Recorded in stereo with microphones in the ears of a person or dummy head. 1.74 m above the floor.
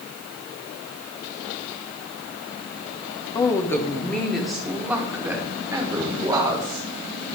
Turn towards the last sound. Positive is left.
turn(degrees=-20)  # may be behind; listen again after turning